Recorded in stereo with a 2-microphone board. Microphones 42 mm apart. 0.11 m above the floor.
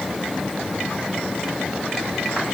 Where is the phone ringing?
I don't hear a phone ringing.